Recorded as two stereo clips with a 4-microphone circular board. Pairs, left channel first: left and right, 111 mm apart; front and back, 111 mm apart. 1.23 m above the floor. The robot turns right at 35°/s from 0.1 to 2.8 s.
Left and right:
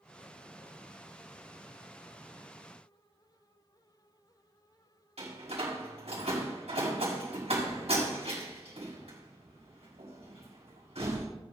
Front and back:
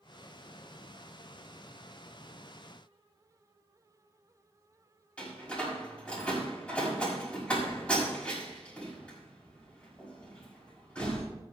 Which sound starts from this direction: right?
A door slam, at 5.2 s.